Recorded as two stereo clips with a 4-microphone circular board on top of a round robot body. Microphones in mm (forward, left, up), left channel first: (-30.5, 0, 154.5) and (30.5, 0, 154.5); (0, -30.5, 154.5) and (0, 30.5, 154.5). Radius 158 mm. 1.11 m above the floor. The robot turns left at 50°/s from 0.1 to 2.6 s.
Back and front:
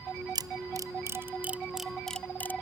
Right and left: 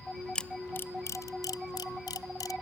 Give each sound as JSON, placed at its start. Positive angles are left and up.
{"t": 0.3, "sound": "a camera shutter", "azimuth_deg": -10}